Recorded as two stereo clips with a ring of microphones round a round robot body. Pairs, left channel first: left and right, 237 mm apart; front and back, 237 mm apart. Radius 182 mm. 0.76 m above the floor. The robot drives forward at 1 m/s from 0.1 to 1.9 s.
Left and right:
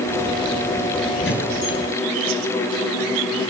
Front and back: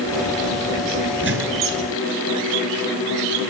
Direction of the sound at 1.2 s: 150° left.